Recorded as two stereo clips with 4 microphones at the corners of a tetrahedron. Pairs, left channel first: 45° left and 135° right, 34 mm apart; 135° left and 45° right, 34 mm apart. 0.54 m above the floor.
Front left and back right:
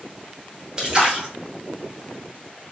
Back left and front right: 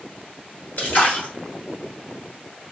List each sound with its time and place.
0.8 s a splash: 160° left, 1.4 m